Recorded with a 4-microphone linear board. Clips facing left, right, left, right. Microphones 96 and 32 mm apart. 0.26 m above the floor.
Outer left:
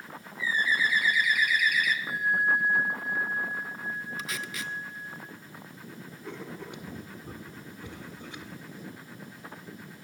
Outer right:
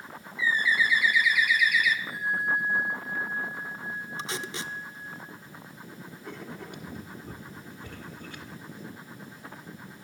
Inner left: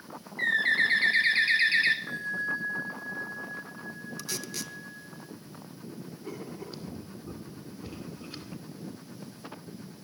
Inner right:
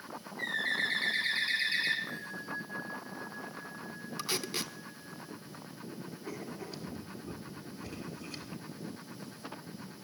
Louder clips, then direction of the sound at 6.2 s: Outer left 1 dB, inner left 2 dB; 20° left (ahead or behind).